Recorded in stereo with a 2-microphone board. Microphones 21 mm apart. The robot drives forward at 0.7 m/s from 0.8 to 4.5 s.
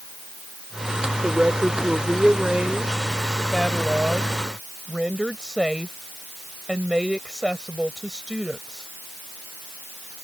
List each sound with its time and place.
1.2 s a woman speaking: 50° right (ahead or behind); by 8.9 s 35° right (ahead or behind)